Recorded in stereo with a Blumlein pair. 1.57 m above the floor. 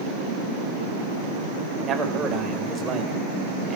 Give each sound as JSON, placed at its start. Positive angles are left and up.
{"t": 1.8, "sound": "a man speaking", "azimuth_deg": -25, "distance_m": 5.0}